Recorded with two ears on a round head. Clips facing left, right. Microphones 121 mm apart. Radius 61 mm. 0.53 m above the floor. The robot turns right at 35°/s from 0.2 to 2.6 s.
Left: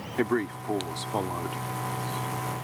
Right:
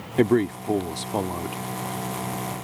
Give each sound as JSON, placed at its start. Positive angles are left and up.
{"t": 0.2, "sound": "a man speaking", "azimuth_deg": -60}